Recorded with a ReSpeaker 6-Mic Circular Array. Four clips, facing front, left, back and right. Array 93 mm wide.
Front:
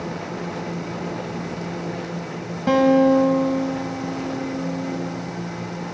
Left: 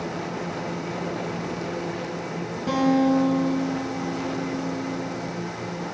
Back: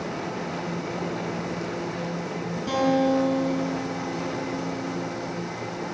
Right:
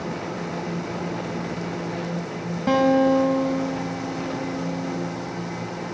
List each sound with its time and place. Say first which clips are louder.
2.7 s a guitar: right 2 dB, front 7 dB; 30° right, 2 m